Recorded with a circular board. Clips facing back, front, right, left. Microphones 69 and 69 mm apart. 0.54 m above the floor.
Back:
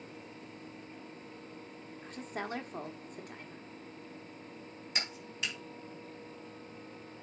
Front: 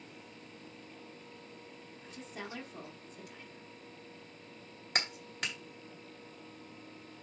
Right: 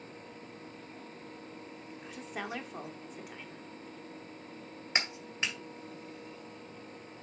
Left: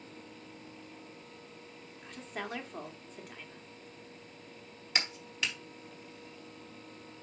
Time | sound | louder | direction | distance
2.0 | a woman speaking | back 6 dB, even | 175° right | 1.2 m
5.0 | a clap | front 3 dB, right 1 dB | 30° right | 2 m